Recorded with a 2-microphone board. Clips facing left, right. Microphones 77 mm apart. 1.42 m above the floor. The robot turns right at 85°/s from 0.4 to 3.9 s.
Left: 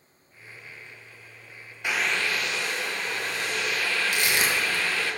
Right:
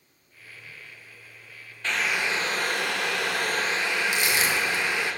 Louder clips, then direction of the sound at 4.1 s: Even; 55° left (ahead or behind).